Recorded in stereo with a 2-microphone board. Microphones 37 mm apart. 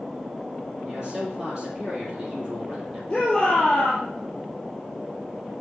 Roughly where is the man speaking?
Right.